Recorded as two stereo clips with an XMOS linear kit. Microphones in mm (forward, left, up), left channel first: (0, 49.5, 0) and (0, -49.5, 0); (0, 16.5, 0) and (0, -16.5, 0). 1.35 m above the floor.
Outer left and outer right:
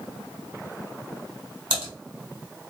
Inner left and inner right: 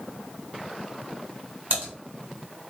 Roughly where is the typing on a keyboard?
Right.